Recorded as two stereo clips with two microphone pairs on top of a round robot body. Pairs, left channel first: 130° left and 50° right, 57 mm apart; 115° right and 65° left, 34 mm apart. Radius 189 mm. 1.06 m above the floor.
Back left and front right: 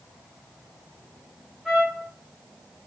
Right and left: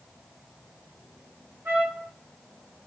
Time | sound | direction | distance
1.6 | a trumpet | 35° left | 0.8 m